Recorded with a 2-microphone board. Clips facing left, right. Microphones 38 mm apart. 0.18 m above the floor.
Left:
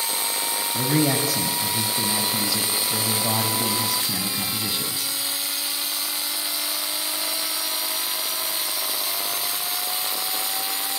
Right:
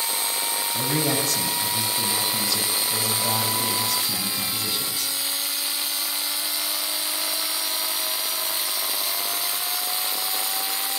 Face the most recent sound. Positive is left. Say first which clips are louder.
# left 4 dB
turn(degrees=10)  # may be behind; listen again after turning